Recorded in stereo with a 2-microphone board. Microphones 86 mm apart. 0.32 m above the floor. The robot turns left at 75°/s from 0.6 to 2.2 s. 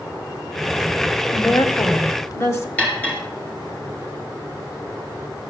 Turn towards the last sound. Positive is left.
turn(degrees=20)  # may be behind; listen again after turning